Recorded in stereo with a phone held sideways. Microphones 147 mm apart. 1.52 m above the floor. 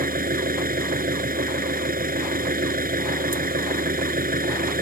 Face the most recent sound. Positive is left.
turn(degrees=-80)